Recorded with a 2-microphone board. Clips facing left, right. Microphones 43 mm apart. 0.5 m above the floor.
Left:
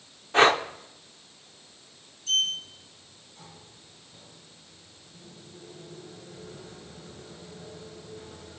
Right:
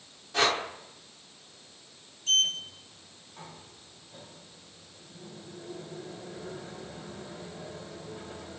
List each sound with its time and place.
0.3 s breathing: 40° left (ahead or behind), 0.9 m
2.3 s a sliding door: 45° right (ahead or behind), 2.5 m